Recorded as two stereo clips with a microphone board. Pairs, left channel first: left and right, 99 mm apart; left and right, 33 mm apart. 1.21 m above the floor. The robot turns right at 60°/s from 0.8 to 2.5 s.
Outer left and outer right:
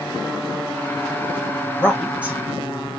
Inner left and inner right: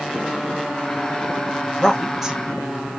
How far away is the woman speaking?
About 1.7 m.